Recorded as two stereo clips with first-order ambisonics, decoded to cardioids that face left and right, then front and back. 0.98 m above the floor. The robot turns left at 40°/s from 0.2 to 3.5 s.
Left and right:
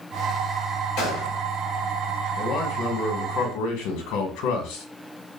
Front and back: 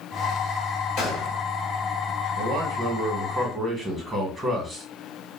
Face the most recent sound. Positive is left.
turn(degrees=110)